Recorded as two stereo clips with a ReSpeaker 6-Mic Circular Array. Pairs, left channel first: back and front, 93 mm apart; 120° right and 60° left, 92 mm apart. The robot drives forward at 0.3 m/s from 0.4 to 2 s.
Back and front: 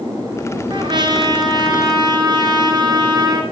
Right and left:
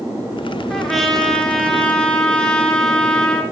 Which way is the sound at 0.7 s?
35° right.